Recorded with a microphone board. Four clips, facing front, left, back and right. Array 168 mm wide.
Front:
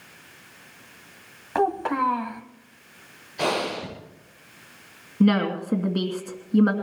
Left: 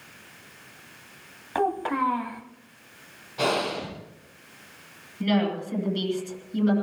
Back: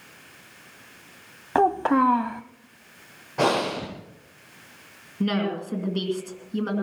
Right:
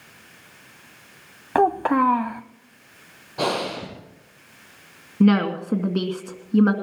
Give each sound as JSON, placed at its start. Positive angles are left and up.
{"t": 1.6, "sound": "a child speaking", "azimuth_deg": -120, "distance_m": 0.7}
{"t": 3.4, "sound": "breathing", "azimuth_deg": -155, "distance_m": 7.0}
{"t": 5.2, "sound": "a woman speaking", "azimuth_deg": -65, "distance_m": 2.5}